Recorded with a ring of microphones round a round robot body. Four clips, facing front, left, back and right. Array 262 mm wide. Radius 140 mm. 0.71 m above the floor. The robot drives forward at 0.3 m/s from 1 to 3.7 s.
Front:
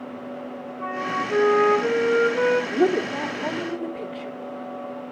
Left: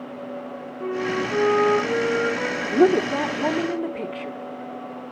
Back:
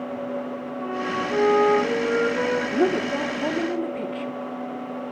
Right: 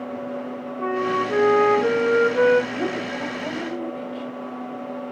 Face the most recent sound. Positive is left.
turn(degrees=105)